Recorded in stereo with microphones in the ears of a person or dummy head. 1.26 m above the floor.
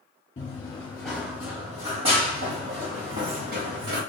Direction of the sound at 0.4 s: 25° left (ahead or behind).